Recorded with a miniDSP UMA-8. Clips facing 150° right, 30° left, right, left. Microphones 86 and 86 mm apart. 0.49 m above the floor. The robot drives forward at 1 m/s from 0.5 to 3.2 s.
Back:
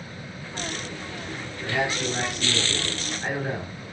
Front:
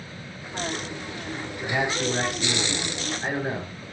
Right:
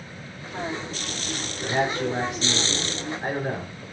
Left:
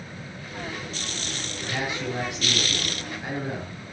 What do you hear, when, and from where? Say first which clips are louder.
1.6 s a man speaking: front 1 dB, right 6 dB; 40° right, 9 m; by 3.8 s 50° right, 7.5 m